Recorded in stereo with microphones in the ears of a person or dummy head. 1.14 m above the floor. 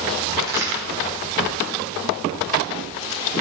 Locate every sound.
0.4 s a crack: 15° right (ahead or behind), 1.7 m